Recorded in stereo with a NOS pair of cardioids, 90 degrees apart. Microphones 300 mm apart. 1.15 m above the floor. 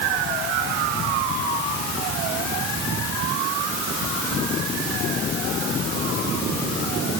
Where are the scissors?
I don't hear scissors.